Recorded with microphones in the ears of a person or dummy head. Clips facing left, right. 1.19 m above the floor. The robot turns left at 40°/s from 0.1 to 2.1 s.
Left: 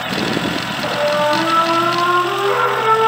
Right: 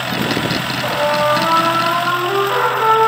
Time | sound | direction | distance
0.8 | a trumpet | 160° left | 2 m